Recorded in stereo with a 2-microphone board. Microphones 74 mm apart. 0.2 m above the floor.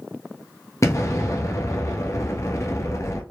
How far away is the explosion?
About 1.1 m.